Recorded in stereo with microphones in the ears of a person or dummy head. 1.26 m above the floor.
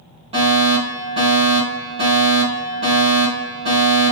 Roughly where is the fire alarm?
Right.